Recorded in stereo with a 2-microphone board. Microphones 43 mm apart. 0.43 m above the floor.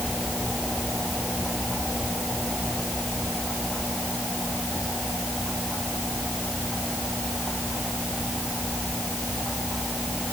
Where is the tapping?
No tapping in this recording.